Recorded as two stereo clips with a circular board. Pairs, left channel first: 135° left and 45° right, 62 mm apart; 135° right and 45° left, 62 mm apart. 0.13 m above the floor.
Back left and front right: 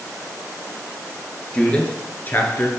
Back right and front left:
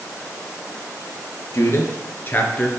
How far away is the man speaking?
About 1.9 m.